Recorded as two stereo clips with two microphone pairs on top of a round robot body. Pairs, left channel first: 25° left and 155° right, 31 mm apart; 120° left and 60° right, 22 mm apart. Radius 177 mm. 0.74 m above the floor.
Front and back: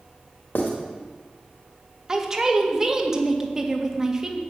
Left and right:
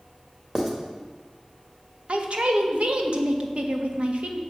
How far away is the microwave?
No microwave in this recording.